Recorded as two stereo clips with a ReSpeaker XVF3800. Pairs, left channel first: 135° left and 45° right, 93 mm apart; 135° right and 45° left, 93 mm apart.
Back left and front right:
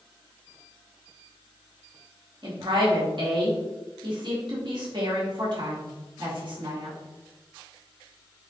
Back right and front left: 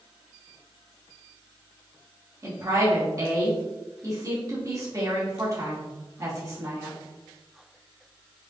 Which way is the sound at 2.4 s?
10° right.